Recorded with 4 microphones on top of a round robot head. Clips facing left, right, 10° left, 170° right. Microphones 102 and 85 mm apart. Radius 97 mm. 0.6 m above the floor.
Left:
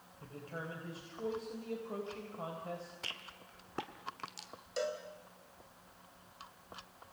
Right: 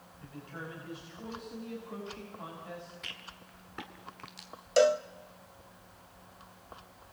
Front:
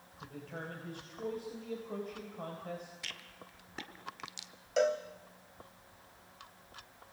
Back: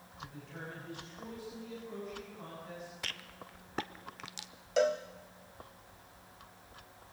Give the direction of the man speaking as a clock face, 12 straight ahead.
11 o'clock.